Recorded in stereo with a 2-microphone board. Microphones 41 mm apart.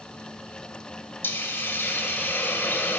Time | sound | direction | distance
1.2 | a hiss | 65° left (ahead or behind) | 1.3 m